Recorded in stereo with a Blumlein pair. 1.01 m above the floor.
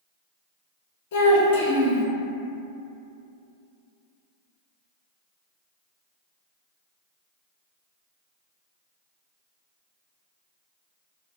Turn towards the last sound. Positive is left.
turn(degrees=55)